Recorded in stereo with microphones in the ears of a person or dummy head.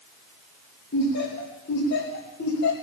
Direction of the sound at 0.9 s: 65° left (ahead or behind).